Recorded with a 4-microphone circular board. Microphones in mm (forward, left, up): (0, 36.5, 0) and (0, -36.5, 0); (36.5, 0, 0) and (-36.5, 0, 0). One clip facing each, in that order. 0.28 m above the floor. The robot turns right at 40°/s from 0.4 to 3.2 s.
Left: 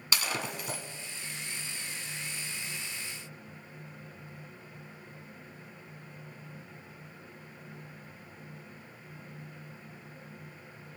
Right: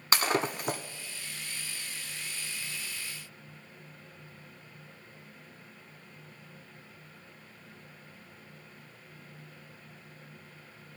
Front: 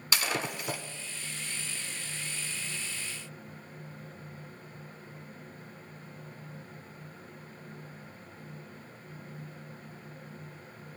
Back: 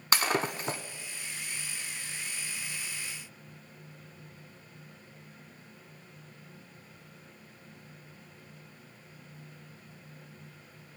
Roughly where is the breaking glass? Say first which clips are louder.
Right 6 dB, back 4 dB; behind right.